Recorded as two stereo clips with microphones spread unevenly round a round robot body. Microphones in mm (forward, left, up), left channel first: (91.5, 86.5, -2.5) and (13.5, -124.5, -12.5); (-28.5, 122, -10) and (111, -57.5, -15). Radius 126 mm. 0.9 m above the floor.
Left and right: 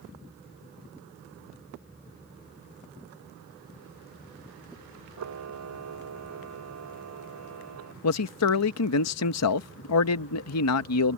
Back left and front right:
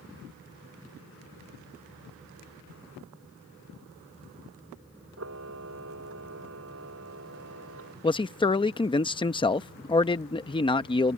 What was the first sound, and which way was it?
A camera shutter, 95° right.